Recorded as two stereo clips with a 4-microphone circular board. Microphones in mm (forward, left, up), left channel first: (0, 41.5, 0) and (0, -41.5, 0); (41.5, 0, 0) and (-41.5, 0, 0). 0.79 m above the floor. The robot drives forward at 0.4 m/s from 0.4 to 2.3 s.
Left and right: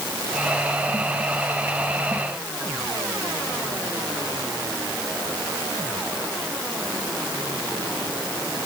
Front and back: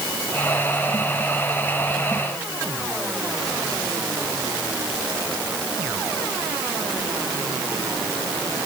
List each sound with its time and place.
Only background noise.